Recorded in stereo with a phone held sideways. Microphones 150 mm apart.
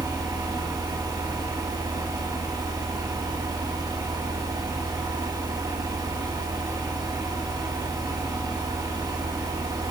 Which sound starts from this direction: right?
A fan, at 0.0 s.